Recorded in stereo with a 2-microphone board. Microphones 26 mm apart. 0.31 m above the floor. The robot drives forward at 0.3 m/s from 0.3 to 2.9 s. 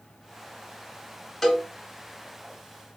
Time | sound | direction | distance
1.4 | a cowbell | 10° left (ahead or behind) | 2.0 m